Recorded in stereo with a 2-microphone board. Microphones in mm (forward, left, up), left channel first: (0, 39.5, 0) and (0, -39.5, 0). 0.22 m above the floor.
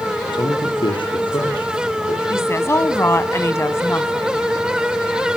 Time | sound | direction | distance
0.3 | a man speaking | 75° left (ahead or behind) | 7 m
2.3 | a woman speaking | 35° left (ahead or behind) | 1.6 m